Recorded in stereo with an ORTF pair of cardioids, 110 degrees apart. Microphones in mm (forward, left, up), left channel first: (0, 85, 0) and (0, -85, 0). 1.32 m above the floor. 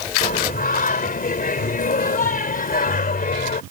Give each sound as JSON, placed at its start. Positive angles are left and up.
{"t": 0.2, "sound": "singing", "azimuth_deg": 60}